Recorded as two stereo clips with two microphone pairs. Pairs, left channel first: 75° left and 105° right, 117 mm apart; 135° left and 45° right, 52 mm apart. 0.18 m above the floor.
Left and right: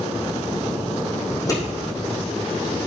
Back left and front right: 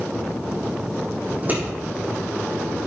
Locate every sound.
1.3 s scissors: 15° left, 6.5 m